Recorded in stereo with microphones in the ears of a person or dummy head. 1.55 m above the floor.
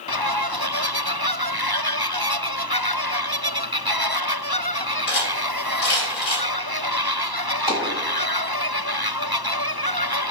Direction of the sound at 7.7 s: Centre (ahead or behind).